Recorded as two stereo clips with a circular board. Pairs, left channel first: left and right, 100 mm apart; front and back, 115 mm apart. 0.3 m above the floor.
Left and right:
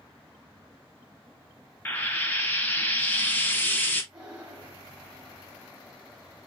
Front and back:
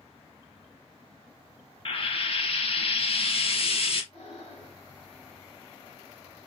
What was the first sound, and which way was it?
Frying, 20° left.